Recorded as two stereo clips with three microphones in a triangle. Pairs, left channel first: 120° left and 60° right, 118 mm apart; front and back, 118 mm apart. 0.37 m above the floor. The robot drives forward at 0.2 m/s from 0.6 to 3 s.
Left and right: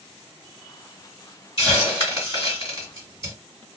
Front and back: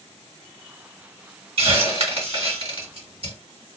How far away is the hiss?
About 2 m.